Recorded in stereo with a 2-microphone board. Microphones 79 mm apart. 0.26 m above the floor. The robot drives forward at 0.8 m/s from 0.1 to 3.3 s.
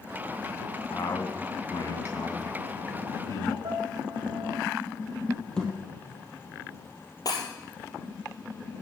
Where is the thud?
10° left (ahead or behind), 3 m.